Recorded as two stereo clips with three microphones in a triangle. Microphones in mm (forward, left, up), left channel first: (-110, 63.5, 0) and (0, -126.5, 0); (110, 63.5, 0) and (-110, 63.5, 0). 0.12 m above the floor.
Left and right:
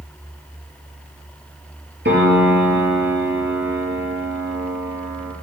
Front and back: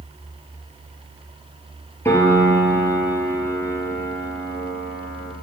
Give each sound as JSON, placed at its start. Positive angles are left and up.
{"t": 2.0, "sound": "a piano", "azimuth_deg": -75, "distance_m": 2.5}